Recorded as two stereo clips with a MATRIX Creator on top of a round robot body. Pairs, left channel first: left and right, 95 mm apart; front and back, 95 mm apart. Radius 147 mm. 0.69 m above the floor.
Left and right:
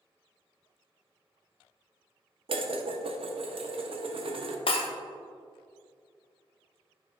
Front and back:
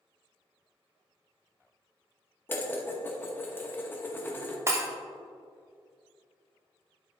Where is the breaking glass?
115° left, 0.9 m.